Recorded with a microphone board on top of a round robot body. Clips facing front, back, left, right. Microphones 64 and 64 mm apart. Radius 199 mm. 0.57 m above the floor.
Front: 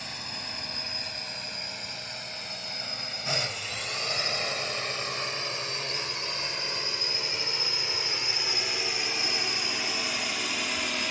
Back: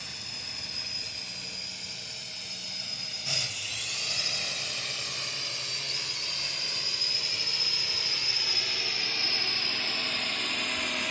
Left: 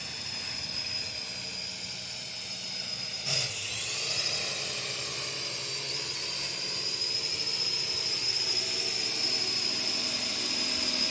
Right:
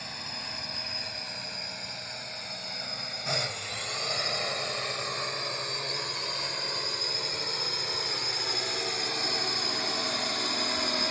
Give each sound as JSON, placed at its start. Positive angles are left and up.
{"t": 0.0, "sound": "a drone", "azimuth_deg": -45}